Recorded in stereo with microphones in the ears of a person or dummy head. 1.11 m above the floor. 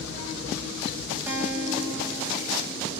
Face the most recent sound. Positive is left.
turn(degrees=-10)  # may be behind; listen again after turning